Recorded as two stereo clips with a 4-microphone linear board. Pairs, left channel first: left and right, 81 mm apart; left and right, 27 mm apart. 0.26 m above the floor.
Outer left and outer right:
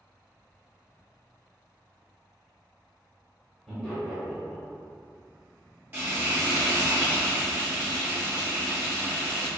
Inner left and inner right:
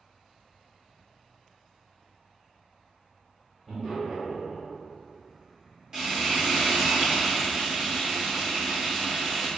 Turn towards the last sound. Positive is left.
turn(degrees=-20)  # may be behind; listen again after turning